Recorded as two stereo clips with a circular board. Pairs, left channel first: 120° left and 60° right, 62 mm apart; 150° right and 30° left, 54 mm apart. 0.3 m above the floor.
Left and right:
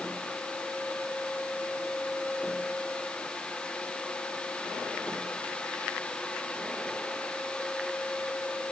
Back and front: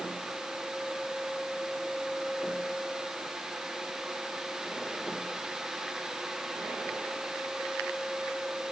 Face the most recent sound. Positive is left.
No sound to turn to.